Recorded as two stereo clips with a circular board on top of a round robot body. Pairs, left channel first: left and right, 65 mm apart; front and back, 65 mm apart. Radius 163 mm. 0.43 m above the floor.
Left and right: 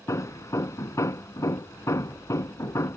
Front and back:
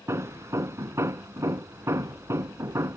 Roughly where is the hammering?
Behind left.